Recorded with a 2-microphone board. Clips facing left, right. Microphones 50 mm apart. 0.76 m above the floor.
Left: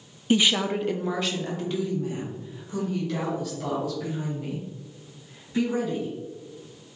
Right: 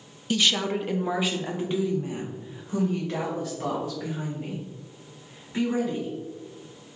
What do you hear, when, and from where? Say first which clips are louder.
0.3 s a woman speaking: left 2 dB; 25° left (ahead or behind), 0.5 m; by 6.1 s 35° right (ahead or behind), 5 m